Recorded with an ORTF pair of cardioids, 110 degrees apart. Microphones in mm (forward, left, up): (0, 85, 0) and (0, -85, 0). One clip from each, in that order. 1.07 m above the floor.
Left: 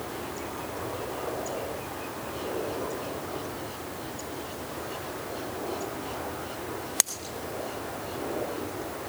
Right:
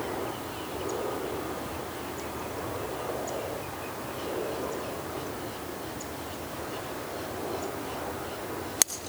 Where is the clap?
I don't hear a clap.